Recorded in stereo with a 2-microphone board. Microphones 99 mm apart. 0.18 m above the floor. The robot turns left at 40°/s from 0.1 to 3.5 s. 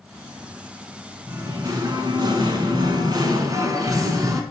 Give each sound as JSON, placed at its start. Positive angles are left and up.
{"t": 1.3, "sound": "singing", "azimuth_deg": -40, "distance_m": 0.8}